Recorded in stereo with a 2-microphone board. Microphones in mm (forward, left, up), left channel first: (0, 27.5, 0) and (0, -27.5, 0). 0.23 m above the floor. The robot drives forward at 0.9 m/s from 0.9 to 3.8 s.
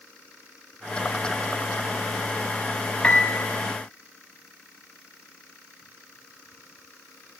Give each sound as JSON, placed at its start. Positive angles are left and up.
{"t": 3.0, "sound": "a piano", "side_deg": 20, "distance_m": 0.7}